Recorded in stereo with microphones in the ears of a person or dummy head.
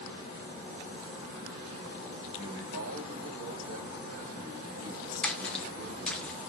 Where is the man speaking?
80° right, 4 m.